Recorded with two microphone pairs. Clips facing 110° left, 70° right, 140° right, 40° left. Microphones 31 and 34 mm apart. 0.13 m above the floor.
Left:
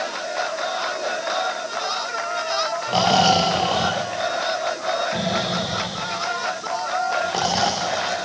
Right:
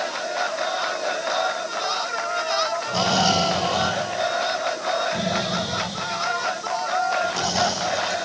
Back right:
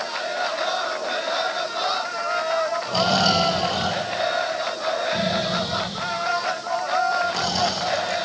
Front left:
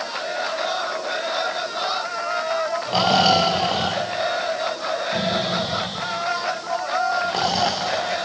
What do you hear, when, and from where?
2.9 s snoring: 85° left, 7.5 m